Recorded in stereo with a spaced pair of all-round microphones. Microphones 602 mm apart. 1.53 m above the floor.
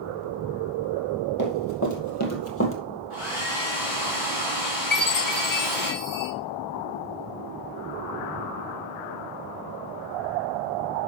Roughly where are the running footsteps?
Left.